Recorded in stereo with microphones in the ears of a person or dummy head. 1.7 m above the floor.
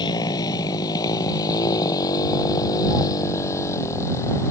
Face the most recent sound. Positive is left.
turn(degrees=20)  # may be behind; listen again after turning